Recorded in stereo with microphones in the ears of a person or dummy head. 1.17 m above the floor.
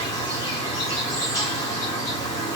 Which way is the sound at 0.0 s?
15° left (ahead or behind).